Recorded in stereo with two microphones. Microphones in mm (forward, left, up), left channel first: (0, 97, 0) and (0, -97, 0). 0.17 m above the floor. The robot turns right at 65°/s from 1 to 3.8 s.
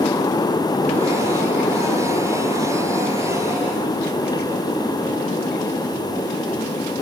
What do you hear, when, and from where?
Only background noise.